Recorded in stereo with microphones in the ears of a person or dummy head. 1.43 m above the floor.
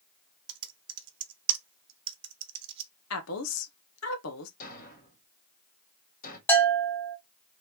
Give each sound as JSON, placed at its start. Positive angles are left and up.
{"t": 0.5, "sound": "typing on a keyboard", "side_deg": -25, "distance_m": 1.0}
{"t": 3.1, "sound": "a woman speaking", "side_deg": 85, "distance_m": 1.3}
{"t": 4.6, "sound": "a thud", "side_deg": 55, "distance_m": 2.5}
{"t": 6.5, "sound": "a bell", "side_deg": 5, "distance_m": 1.2}